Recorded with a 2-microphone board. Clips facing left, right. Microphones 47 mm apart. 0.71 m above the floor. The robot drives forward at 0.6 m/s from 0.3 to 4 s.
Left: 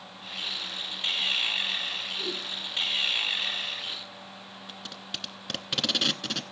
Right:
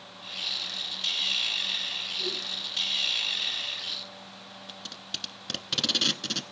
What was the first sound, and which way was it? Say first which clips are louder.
A whoosh: right 1 dB; 45° left (ahead or behind).